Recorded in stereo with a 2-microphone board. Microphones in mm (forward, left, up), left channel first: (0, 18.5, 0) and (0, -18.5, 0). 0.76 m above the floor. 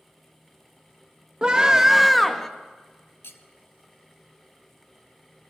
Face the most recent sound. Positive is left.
turn(degrees=80)